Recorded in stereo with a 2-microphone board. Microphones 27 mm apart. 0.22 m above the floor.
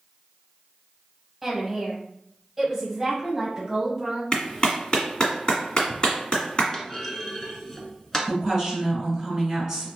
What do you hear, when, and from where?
1.4 s a woman speaking: 5° right (ahead or behind), 1.3 m; by 4.2 s 20° right (ahead or behind), 1.6 m
4.3 s a clap: 35° left (ahead or behind), 1.7 m
6.7 s a clunk: 15° left (ahead or behind), 1.0 m
8.3 s a woman speaking: 15° right (ahead or behind), 2.0 m